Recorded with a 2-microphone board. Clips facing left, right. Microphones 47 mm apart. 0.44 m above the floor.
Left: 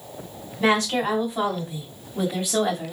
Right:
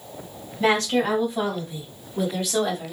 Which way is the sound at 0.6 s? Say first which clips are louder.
Even; 10° left (ahead or behind).